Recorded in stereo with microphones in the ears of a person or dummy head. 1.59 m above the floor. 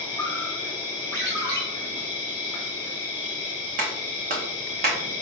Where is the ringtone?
10° left (ahead or behind), 0.7 m.